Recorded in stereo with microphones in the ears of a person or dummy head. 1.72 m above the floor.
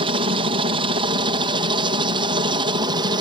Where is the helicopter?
35° right (ahead or behind); by 3.2 s 30° right (ahead or behind).